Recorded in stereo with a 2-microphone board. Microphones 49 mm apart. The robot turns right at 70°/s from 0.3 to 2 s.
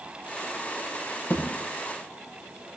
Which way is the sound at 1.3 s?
50° left (ahead or behind).